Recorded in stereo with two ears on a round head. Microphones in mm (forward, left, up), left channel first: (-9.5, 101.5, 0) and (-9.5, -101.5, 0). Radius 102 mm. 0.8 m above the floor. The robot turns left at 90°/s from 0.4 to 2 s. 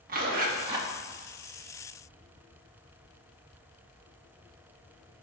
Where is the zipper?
120° right, 1.3 m; by 0.9 s 165° right, 1.3 m.